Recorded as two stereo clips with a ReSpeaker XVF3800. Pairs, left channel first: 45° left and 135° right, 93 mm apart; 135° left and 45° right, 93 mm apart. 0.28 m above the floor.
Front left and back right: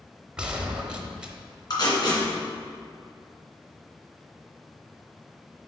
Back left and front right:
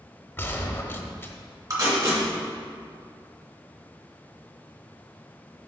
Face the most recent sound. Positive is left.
turn(degrees=5)